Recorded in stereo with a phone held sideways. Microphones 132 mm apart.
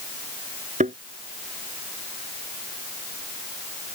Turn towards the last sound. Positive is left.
turn(degrees=-75)  # may be behind; listen again after turning